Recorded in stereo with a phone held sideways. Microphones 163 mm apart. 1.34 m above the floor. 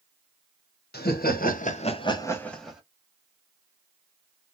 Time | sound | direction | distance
0.9 | laughter | 80° left | 1.0 m